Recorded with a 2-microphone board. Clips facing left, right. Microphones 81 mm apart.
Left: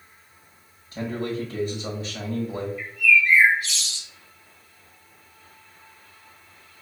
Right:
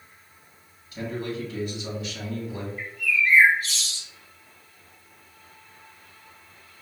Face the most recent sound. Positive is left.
turn(degrees=-40)  # may be behind; listen again after turning